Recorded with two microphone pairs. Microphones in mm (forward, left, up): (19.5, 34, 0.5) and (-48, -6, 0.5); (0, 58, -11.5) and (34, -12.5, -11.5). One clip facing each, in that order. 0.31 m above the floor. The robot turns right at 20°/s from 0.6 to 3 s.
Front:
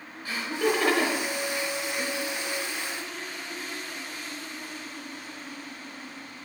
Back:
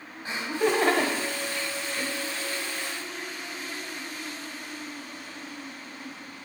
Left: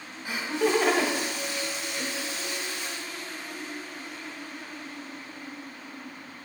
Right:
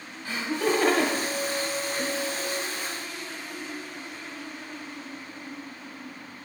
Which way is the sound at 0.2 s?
175° left.